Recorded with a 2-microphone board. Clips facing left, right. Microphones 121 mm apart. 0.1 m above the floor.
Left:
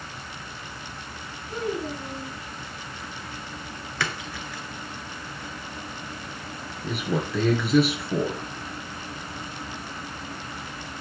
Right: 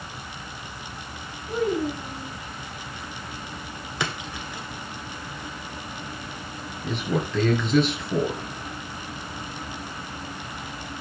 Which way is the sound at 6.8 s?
10° left (ahead or behind).